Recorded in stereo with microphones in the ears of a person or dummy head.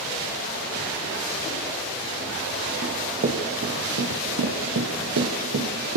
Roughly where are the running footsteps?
Right.